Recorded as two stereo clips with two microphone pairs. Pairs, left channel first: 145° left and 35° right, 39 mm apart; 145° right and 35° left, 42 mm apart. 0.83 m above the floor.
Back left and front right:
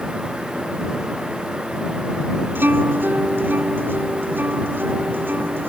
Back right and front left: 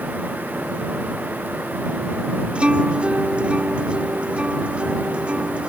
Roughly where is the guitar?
Ahead right.